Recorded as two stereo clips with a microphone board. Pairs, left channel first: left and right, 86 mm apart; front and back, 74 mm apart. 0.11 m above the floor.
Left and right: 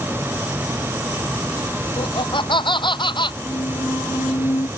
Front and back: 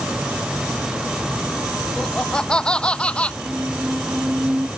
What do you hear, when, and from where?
2.0 s laughter: 80° left; by 3.3 s 75° left
3.4 s a squeak: 115° left